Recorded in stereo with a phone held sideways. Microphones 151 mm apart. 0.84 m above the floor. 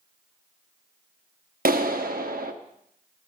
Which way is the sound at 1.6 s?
75° right (ahead or behind).